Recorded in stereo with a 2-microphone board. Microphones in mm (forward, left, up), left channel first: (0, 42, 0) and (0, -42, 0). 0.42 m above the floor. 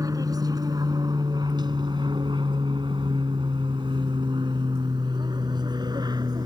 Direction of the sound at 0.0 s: 45° right (ahead or behind).